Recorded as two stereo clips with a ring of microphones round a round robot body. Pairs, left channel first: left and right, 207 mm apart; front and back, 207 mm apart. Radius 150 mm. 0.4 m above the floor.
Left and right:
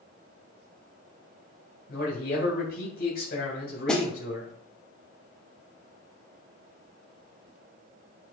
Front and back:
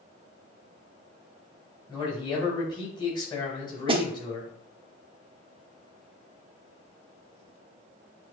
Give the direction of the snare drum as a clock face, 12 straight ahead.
6 o'clock.